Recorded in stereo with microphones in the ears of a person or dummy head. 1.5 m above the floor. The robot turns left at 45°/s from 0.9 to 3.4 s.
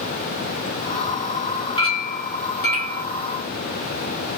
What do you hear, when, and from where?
1.8 s a clink: 145° left, 1.3 m; by 3.0 s 90° left, 1.3 m